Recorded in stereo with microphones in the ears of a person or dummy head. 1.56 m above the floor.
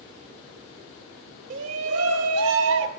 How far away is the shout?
About 1.0 m.